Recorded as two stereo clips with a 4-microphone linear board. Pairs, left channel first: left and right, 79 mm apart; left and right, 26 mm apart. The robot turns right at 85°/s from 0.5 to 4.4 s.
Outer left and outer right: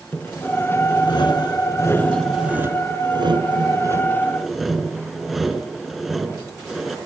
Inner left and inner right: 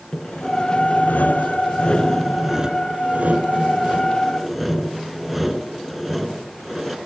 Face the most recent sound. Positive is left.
turn(degrees=0)